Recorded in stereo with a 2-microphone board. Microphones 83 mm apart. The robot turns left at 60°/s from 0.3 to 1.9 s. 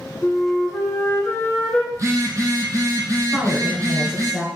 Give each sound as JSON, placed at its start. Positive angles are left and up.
{"t": 0.2, "sound": "a flute", "side_deg": 20, "distance_m": 1.4}
{"t": 1.9, "sound": "a phone buzzing", "side_deg": -45, "distance_m": 1.0}
{"t": 3.3, "sound": "a woman speaking", "side_deg": -10, "distance_m": 1.2}